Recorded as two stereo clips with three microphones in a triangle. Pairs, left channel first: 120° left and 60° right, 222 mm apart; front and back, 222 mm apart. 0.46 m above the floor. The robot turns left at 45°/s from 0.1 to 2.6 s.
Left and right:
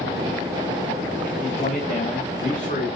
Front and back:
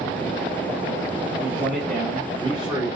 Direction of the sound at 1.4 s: 170° left.